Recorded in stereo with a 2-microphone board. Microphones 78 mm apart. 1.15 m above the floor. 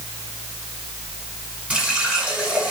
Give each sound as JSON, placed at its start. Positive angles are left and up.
{"t": 1.7, "sound": "a running tap", "side_deg": -15, "distance_m": 7.5}